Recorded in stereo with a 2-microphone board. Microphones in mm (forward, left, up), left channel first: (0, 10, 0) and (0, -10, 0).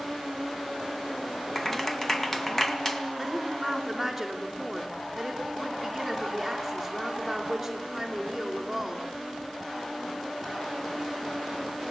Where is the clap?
15° left (ahead or behind), 1.9 m.